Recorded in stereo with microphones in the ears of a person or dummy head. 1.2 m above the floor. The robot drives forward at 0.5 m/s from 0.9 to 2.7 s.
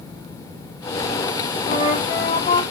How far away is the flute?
About 1.7 m.